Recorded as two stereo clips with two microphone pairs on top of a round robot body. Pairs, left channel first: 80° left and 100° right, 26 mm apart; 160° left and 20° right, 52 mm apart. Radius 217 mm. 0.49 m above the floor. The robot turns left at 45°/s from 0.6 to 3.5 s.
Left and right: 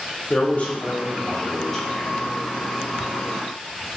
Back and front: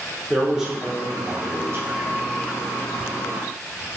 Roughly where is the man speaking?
Ahead left.